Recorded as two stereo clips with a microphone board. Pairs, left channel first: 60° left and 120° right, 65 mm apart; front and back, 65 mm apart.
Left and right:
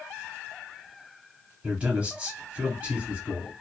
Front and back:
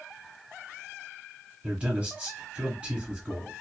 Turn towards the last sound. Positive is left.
turn(degrees=-150)